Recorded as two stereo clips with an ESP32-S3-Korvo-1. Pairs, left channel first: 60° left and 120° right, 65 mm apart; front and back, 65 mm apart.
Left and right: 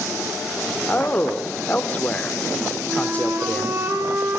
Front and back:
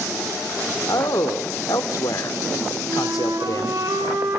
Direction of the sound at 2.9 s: 165° right.